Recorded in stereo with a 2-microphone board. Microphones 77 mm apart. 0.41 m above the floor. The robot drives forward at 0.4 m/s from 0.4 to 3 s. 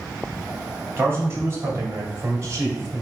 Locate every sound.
1.0 s a man speaking: 35° right (ahead or behind), 2 m; by 3.0 s 45° right (ahead or behind), 1.8 m